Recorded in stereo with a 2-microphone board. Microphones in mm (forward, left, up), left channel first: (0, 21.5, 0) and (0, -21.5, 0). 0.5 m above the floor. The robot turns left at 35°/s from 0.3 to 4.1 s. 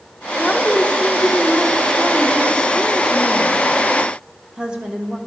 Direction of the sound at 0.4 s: 25° left (ahead or behind).